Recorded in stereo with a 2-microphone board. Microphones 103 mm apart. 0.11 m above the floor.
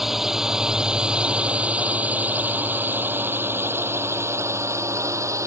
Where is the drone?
5° right (ahead or behind); by 5.5 s 30° right (ahead or behind).